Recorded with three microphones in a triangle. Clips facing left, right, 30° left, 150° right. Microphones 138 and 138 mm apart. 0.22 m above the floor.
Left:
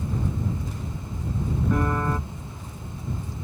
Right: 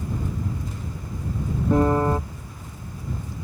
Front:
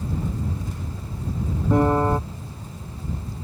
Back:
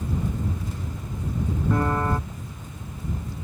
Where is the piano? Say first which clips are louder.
Right 7 dB, front 6 dB; 35° right.